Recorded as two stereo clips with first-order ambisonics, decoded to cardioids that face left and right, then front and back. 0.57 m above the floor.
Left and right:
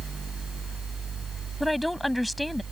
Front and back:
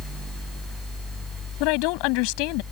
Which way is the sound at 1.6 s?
5° left.